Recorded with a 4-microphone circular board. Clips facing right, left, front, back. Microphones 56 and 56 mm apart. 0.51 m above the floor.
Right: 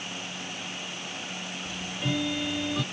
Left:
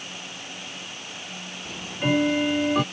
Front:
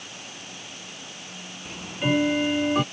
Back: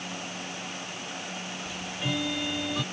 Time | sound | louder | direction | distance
1.6 | ticking | left 8 dB, front 9 dB | 45° left | ?